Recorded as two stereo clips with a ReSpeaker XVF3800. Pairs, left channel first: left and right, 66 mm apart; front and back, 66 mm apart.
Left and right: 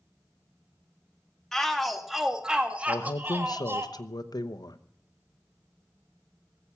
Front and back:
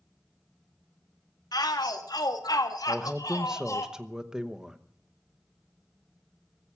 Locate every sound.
1.5 s a shout: 5° left, 1.8 m; by 3.9 s 40° right, 1.7 m
2.9 s a man speaking: 100° left, 0.9 m